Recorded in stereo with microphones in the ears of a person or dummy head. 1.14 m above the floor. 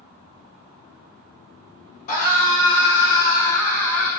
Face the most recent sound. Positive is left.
turn(degrees=15)  # may be behind; listen again after turning